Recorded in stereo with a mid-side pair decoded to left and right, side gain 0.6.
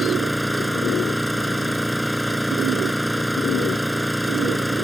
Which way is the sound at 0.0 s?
Straight ahead.